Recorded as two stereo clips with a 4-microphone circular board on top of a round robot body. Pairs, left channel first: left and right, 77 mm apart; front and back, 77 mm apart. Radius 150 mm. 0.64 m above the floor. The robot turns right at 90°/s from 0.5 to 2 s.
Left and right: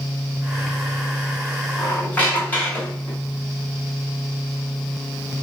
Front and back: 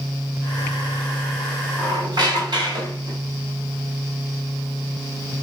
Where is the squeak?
140° left, 2 m; by 3.2 s 160° left, 2 m.